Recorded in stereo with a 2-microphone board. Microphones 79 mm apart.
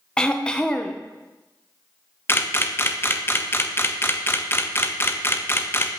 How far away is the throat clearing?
About 0.5 m.